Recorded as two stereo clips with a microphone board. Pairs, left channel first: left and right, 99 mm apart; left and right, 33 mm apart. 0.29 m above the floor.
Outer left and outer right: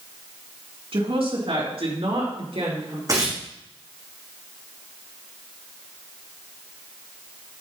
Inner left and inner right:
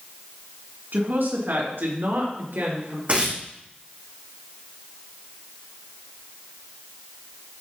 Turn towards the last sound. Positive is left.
turn(degrees=-35)  # may be behind; listen again after turning